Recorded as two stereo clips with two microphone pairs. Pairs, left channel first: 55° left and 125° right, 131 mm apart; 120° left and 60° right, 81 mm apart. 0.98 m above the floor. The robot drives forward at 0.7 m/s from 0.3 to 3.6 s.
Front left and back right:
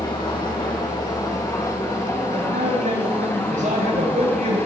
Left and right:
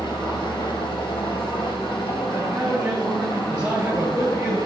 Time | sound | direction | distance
0.0 | an engine running | 105° left | 4.5 m
2.3 | a man speaking | 140° right | 7.5 m